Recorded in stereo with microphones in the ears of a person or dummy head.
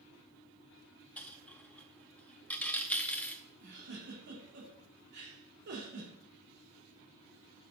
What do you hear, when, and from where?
1.2 s a dropped coin: 10° left (ahead or behind), 0.7 m
3.6 s a giggle: 60° right (ahead or behind), 2.5 m